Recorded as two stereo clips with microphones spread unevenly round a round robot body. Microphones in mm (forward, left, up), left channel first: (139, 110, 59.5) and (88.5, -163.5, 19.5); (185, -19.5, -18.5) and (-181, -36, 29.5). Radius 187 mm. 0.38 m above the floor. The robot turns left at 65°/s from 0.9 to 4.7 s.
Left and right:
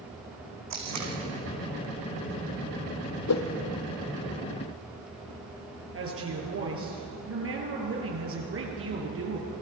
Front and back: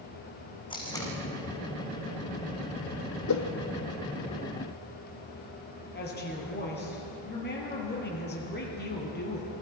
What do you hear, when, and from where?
0.7 s tape being pulled: 75° right, 5 m; by 1.1 s 90° right, 5 m
3.3 s a whoosh: 55° left, 2.5 m; by 3.4 s 45° left, 2.5 m
5.9 s a woman speaking: 60° right, 7 m